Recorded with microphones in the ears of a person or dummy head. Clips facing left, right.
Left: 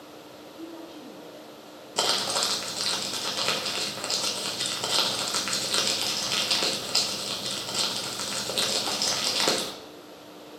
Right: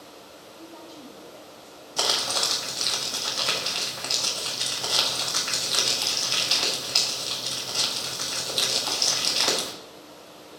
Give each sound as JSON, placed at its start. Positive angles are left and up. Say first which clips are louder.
{"t": 0.6, "sound": "a woman speaking", "louder": "left 4 dB", "side_deg": 25, "distance_m": 0.5}
{"t": 2.0, "sound": "crumpling", "louder": "left 1 dB", "side_deg": 40, "distance_m": 0.8}